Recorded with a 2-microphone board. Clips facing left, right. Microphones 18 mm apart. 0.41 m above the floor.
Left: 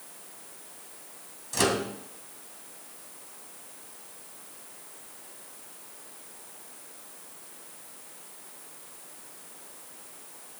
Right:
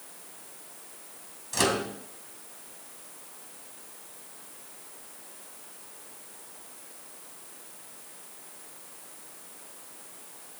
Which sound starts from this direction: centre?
A microwave, at 1.5 s.